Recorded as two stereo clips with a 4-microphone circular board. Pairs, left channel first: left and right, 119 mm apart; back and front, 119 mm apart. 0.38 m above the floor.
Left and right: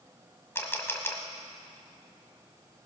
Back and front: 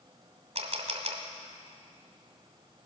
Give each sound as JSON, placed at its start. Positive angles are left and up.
{"t": 0.6, "sound": "a camera shutter", "azimuth_deg": 20, "distance_m": 1.5}